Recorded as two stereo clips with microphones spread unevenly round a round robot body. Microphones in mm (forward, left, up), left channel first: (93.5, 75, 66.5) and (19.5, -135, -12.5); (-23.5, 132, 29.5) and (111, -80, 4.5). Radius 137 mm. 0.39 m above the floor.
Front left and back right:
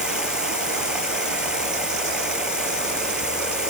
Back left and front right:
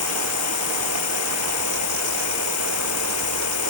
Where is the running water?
165° left.